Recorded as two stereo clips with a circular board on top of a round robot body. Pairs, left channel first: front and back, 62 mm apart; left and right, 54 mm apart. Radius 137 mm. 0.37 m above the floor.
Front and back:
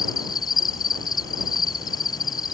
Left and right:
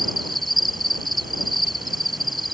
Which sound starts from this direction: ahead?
An insect, at 0.0 s.